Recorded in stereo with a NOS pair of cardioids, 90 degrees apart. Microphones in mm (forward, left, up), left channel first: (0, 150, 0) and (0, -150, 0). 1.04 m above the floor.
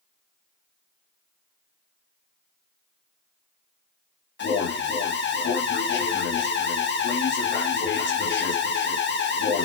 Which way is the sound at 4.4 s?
35° left.